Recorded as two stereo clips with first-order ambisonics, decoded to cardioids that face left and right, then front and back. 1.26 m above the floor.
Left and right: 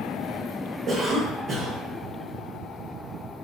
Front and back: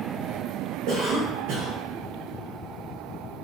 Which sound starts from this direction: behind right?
A cough, at 0.9 s.